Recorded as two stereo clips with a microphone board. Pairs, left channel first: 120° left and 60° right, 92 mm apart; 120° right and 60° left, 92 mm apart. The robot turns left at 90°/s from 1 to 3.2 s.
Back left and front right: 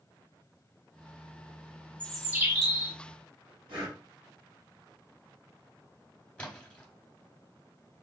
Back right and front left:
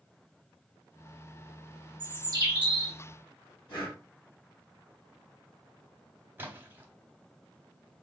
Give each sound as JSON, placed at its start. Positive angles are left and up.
{"t": 2.0, "sound": "a bird", "azimuth_deg": 45, "distance_m": 0.9}
{"t": 3.7, "sound": "breathing", "azimuth_deg": -85, "distance_m": 2.0}
{"t": 6.4, "sound": "a splash", "azimuth_deg": 65, "distance_m": 0.8}